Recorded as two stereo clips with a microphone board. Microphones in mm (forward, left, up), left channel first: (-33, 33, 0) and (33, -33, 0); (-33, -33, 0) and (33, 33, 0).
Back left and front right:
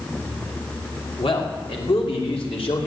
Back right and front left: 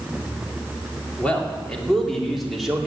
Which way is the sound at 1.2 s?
150° left.